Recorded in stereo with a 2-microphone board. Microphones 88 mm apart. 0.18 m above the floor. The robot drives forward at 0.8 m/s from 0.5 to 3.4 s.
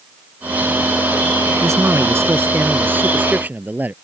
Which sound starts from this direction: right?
A man speaking, at 1.6 s.